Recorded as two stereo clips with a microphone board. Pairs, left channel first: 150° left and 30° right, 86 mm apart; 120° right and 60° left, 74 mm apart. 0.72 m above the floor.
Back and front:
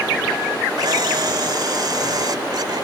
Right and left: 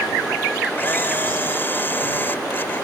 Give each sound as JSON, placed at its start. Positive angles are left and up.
{"t": 0.8, "sound": "a camera shutter", "azimuth_deg": -60}